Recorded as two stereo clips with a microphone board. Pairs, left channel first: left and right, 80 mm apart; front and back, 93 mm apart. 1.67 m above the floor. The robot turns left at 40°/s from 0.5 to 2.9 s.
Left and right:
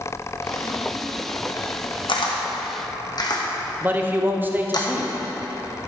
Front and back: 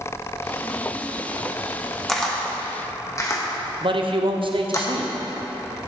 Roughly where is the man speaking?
Behind right.